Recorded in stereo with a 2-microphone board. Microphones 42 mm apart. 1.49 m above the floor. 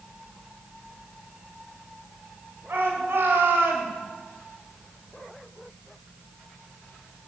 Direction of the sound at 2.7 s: 85° right.